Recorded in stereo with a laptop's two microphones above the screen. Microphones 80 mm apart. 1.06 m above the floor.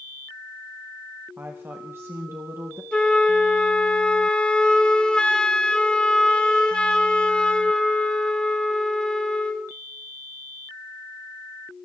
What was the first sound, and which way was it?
A woman speaking, 30° right (ahead or behind).